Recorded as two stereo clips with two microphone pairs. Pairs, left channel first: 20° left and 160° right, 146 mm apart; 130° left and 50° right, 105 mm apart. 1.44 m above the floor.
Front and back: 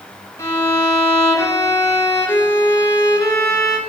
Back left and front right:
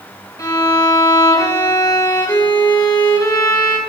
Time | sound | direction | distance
0.4 | a violin | 85° left | 2.5 m